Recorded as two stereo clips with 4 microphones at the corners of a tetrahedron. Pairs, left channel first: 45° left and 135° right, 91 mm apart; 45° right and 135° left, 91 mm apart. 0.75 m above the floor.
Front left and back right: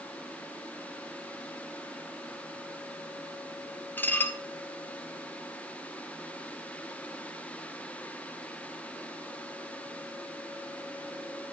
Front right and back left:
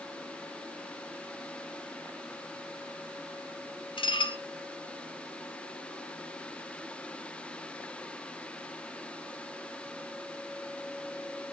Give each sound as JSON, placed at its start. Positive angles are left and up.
{"t": 4.0, "sound": "dishes clattering", "azimuth_deg": -25, "distance_m": 1.2}